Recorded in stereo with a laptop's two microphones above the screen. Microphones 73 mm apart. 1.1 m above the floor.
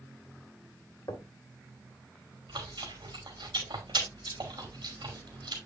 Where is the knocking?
60° left (ahead or behind), 1.7 m.